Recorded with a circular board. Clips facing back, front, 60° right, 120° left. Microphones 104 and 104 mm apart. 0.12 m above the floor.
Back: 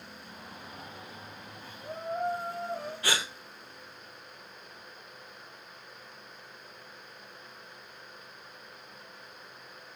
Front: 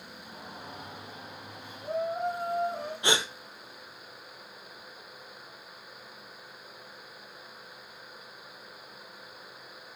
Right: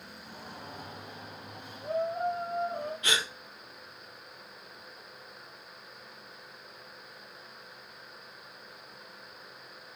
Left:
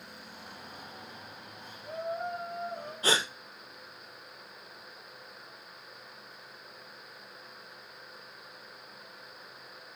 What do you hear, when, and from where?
0.2 s a shout: 60° right, 4 m; by 2.9 s 80° right, 5.5 m
3.0 s a gasp: 65° left, 1.3 m